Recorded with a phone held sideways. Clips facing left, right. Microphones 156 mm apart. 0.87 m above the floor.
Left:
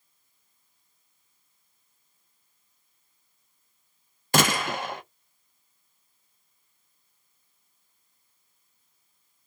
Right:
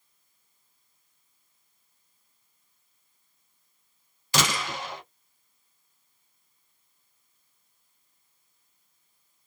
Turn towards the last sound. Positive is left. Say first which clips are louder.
# left 5 dB
turn(degrees=55)  # may be behind; listen again after turning